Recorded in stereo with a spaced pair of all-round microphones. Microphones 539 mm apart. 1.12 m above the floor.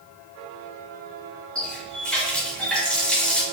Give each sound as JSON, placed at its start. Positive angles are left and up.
{"t": 1.6, "sound": "a running tap", "side_deg": 0, "distance_m": 0.8}